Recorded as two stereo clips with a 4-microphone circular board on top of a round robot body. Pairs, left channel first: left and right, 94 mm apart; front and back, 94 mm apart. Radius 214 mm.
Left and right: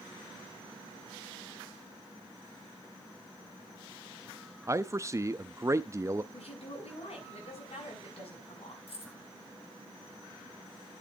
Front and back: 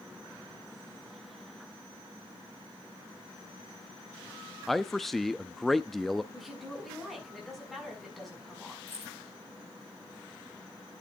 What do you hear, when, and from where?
4.7 s a man speaking: 85° right, 0.9 m
6.3 s a woman speaking: 90° left, 6.5 m
8.9 s keys jangling: 70° left, 9.5 m